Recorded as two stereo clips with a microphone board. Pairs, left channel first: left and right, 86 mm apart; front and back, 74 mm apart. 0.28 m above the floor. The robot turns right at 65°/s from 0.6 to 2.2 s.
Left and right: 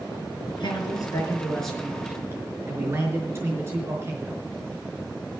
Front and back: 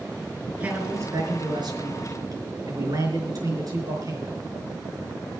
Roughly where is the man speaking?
Left.